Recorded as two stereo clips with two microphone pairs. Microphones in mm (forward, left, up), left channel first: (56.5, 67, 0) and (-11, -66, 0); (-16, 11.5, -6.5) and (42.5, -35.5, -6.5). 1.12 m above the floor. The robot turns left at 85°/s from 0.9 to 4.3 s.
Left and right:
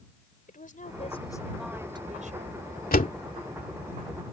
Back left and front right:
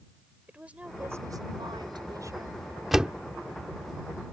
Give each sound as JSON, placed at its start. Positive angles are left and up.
{"t": 0.5, "sound": "a woman speaking", "azimuth_deg": 35}
{"t": 2.9, "sound": "a door slam", "azimuth_deg": 45}